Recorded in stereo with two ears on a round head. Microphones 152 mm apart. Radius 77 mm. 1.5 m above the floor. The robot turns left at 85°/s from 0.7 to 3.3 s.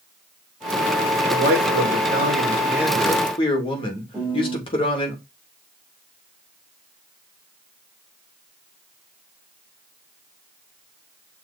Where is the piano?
5° right (ahead or behind), 4.5 m.